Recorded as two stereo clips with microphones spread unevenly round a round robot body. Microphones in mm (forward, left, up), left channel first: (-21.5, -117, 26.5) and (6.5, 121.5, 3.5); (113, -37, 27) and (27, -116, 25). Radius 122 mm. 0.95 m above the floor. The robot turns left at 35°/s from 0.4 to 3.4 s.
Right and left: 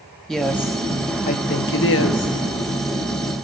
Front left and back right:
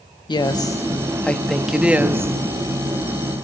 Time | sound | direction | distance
0.3 | a woman speaking | 5° right | 1.7 m